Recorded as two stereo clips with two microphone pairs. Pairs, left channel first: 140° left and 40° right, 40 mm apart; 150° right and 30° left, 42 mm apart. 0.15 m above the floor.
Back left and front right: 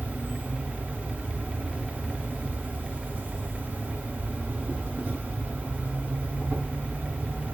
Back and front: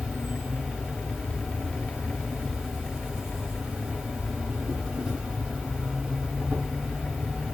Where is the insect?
40° right, 1.6 m.